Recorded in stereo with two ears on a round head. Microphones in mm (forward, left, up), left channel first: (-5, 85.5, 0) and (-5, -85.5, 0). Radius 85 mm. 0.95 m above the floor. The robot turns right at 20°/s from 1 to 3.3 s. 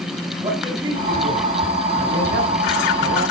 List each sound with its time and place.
0.4 s a man speaking: 155° right, 6 m; by 3.2 s 110° right, 6 m